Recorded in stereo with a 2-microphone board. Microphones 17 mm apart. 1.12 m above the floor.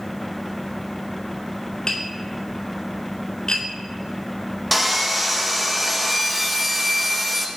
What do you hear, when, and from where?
1.9 s tapping: 65° left (ahead or behind), 1.7 m
4.7 s sawing: 5° left (ahead or behind), 0.8 m